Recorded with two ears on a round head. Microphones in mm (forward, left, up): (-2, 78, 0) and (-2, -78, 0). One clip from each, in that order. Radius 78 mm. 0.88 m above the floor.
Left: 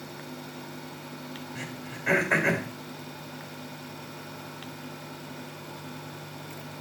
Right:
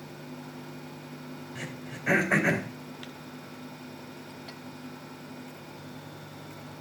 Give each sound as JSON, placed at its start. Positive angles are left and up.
{"t": 1.6, "sound": "throat clearing", "side_deg": 20, "distance_m": 3.0}